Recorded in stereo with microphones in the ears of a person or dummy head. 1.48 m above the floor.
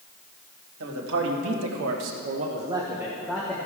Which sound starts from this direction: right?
A man speaking, at 0.8 s.